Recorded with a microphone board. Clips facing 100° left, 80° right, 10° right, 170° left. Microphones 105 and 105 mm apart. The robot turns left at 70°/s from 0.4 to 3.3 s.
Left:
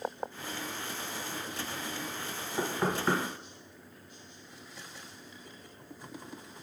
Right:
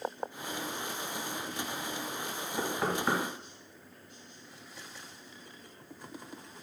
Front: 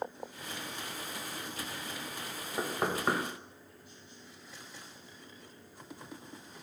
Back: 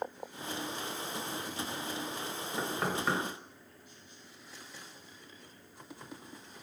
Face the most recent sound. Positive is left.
turn(degrees=-30)